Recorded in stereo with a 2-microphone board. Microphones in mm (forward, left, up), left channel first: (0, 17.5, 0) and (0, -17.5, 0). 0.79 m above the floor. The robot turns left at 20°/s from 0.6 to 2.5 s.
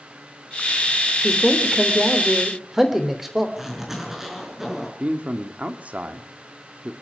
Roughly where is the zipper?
Centre.